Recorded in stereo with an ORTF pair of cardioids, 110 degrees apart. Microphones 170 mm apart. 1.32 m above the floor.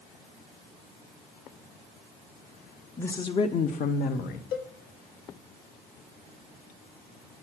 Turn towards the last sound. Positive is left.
turn(degrees=70)